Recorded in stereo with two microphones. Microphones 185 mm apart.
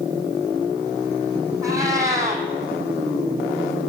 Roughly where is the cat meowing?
Centre.